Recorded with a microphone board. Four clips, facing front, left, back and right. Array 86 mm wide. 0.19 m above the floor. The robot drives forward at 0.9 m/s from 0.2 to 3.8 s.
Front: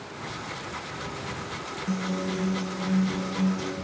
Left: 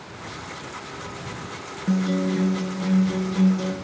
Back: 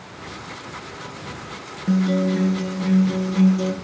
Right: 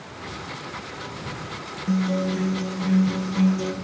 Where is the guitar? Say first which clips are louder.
Left 1 dB, back 10 dB; 145° left, 1.1 m; by 3.7 s 170° left, 2.5 m.